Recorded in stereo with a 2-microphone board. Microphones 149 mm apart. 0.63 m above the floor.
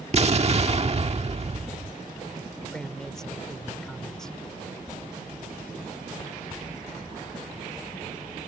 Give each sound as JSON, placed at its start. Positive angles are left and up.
{"t": 0.1, "sound": "an explosion", "side_deg": -45}
{"t": 2.7, "sound": "a man speaking", "side_deg": 5}